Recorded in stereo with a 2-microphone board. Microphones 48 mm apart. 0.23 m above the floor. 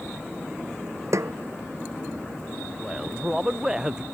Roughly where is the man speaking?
Centre.